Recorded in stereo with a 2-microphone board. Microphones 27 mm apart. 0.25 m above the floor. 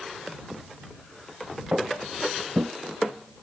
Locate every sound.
1.7 s footsteps: 45° right (ahead or behind); by 2.7 s 40° right (ahead or behind)